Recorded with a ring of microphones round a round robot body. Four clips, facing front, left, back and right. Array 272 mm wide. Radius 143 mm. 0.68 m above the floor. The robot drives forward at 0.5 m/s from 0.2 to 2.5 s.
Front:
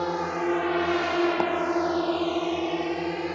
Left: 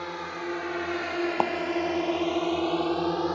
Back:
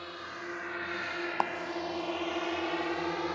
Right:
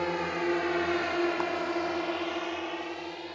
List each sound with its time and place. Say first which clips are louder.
0.0 s a drone: right 4 dB, front 15 dB; 25° right; by 3.4 s 65° left
1.4 s a clap: left 6 dB, front 5 dB; 55° left